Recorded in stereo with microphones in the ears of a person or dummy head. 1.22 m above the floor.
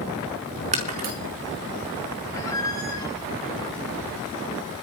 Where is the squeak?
15° left (ahead or behind), 8 m.